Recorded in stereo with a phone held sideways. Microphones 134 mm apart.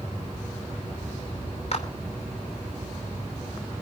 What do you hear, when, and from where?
1.7 s a clap: 50° left (ahead or behind), 2.5 m